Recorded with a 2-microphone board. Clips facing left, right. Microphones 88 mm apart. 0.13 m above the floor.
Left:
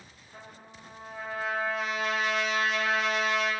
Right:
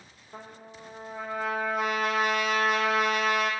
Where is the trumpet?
55° right (ahead or behind), 0.9 m.